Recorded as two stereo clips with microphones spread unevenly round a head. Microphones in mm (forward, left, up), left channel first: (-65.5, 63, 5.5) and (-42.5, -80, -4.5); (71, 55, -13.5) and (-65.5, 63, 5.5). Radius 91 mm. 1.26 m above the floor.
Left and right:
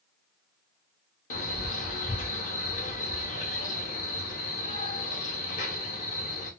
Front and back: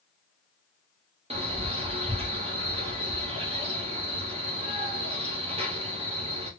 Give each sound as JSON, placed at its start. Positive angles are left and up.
{"t": 1.3, "sound": "a man speaking", "azimuth_deg": 130, "distance_m": 1.5}